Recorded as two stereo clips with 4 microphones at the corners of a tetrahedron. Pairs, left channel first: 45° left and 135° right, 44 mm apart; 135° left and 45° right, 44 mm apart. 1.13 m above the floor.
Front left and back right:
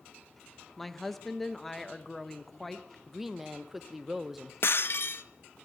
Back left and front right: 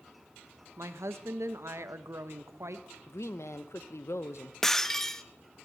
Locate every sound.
0.8 s a woman speaking: 40° right, 0.8 m
3.1 s a woman speaking: 140° left, 0.6 m
4.6 s breaking glass: 55° left, 0.5 m